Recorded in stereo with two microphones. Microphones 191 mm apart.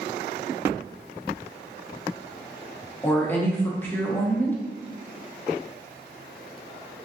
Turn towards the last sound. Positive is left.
turn(degrees=10)  # may be behind; listen again after turning